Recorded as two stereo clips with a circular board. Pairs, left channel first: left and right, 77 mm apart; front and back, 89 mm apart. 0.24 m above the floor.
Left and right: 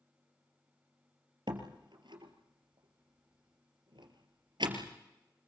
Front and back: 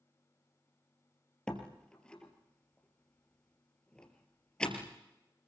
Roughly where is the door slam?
Right.